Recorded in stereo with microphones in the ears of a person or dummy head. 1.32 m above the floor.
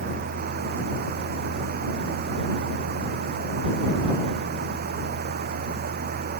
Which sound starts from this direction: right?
A fan, at 0.0 s.